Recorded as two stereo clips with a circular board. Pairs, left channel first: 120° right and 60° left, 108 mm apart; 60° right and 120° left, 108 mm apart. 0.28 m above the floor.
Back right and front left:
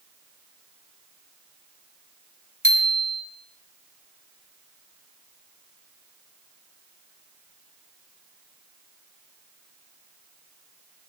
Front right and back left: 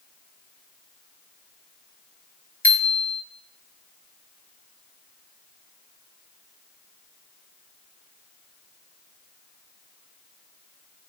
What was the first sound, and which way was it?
A bicycle bell, 140° right.